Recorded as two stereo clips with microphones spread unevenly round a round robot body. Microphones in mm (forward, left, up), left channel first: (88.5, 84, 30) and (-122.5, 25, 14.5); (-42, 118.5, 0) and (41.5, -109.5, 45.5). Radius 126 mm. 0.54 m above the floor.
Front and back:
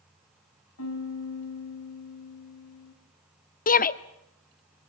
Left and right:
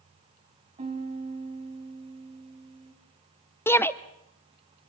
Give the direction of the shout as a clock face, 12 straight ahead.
10 o'clock.